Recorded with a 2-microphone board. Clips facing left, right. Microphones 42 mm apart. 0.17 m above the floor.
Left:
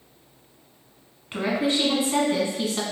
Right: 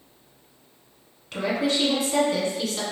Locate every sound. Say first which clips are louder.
1.3 s a woman speaking: left 1 dB; 20° left (ahead or behind), 1.2 m